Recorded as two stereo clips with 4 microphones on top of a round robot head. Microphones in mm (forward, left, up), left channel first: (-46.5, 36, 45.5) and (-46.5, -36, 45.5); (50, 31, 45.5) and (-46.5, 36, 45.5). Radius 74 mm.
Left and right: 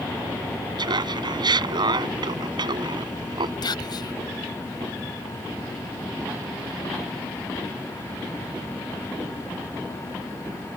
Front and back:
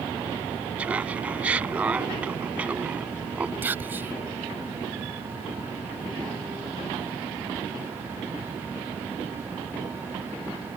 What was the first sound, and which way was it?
Laughter, 105° right.